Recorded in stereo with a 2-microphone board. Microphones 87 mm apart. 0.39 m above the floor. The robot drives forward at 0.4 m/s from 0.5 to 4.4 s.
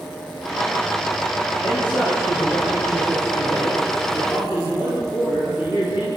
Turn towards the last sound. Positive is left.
turn(degrees=55)  # may be behind; listen again after turning